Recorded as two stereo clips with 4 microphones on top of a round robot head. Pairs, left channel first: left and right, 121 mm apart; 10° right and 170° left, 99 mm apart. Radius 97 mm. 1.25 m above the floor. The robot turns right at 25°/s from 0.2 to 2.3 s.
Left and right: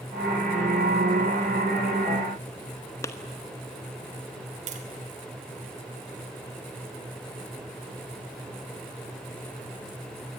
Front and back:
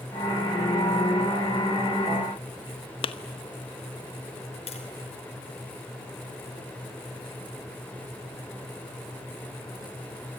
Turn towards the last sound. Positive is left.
turn(degrees=-50)